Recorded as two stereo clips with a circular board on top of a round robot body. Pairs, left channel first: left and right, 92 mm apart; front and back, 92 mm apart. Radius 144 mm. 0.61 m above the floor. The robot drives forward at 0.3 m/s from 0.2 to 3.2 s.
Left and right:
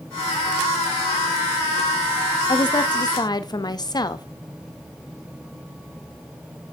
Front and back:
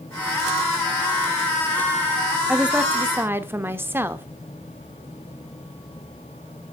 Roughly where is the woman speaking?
Left.